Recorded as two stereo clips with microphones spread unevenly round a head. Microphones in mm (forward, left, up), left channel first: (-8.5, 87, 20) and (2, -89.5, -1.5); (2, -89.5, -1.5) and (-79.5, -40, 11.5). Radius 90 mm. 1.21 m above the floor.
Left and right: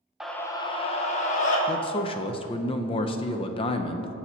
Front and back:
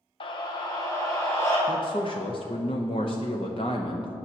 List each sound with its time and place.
0.2 s a scream: 5° right, 0.5 m; by 1.6 s 45° left, 1.6 m
1.7 s a man speaking: 30° left, 0.5 m